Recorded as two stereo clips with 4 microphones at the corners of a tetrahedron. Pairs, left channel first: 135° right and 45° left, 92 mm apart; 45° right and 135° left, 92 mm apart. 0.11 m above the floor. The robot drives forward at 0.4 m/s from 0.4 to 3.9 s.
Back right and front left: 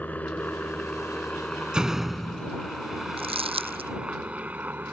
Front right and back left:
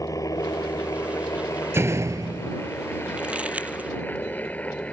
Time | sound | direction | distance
0.0 | a helicopter | 70° right | ?
1.7 | a door slam | 115° left | ?
3.2 | crumpling | 55° left | ?